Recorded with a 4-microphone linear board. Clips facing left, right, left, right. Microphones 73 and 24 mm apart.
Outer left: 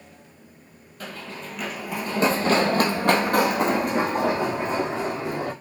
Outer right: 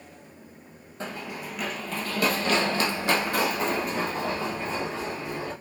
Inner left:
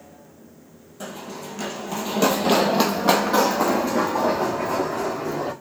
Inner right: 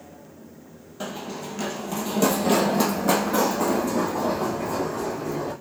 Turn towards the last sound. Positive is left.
turn(degrees=75)  # may be behind; listen again after turning